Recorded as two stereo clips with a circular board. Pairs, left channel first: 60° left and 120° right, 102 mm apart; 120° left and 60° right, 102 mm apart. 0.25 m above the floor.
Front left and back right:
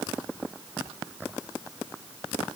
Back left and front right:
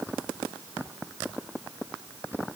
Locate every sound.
Only background noise.